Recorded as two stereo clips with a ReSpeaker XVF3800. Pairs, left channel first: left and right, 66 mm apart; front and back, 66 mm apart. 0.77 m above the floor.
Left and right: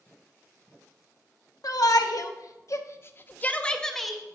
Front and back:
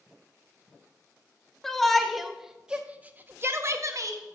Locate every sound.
1.6 s a shout: 85° left, 1.1 m; by 4.2 s 175° right, 0.8 m